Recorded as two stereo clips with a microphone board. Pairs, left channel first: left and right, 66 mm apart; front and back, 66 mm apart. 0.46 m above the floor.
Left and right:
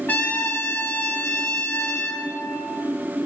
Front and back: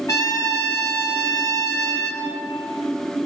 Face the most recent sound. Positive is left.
turn(degrees=25)